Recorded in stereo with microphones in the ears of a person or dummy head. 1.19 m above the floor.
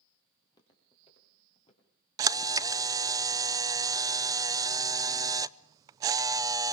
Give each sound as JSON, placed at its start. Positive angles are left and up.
{"t": 0.4, "sound": "footsteps", "side_deg": 20, "distance_m": 5.5}
{"t": 2.2, "sound": "a camera shutter", "side_deg": -20, "distance_m": 0.5}